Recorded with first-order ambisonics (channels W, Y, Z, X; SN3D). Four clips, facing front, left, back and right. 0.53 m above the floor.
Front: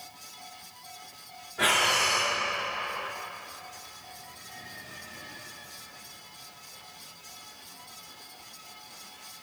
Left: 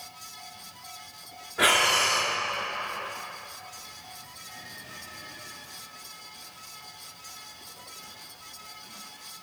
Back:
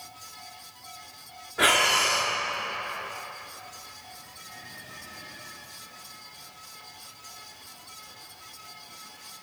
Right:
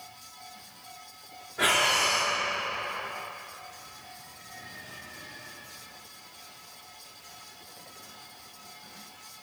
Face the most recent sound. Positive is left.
turn(degrees=140)